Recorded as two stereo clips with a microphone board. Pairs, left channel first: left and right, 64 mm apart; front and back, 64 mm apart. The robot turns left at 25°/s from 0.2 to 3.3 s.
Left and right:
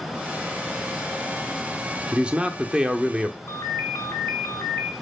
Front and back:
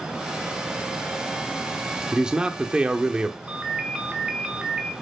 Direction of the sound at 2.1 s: 125° right.